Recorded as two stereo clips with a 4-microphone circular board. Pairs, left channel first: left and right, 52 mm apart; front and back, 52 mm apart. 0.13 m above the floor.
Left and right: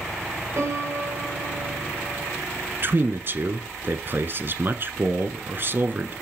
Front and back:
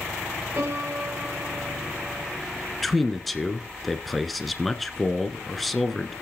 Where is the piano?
125° right, 4.5 m.